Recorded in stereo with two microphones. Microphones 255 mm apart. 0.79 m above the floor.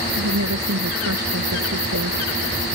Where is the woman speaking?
85° right.